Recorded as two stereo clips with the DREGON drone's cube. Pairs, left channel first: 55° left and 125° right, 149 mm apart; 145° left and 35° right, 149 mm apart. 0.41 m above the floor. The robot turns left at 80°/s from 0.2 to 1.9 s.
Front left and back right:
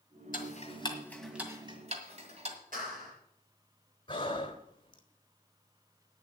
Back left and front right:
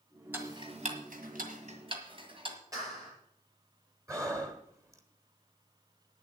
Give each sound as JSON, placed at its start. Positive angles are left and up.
{"t": 0.3, "sound": "ticking", "azimuth_deg": 40, "distance_m": 1.7}
{"t": 2.7, "sound": "a clap", "azimuth_deg": -100, "distance_m": 7.5}
{"t": 4.1, "sound": "breathing", "azimuth_deg": 20, "distance_m": 1.1}